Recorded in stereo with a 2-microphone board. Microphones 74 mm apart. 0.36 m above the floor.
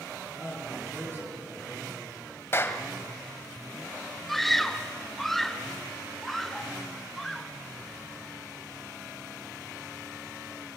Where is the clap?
30° left (ahead or behind), 1.6 m.